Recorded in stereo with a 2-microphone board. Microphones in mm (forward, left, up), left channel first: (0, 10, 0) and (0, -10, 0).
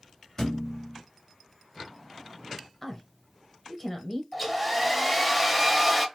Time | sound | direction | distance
0.4 | a thud | 35° left (ahead or behind) | 1.5 m
2.8 | a woman speaking | 15° left (ahead or behind) | 0.9 m
4.3 | a hair dryer | 10° right (ahead or behind) | 0.8 m